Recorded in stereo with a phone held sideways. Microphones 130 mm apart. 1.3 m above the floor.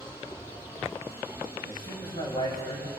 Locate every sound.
0.0 s a machine running: 40° left (ahead or behind), 7 m
1.7 s a man speaking: 40° left (ahead or behind), 7 m